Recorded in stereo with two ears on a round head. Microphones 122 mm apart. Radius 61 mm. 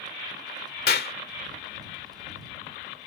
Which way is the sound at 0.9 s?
80° left.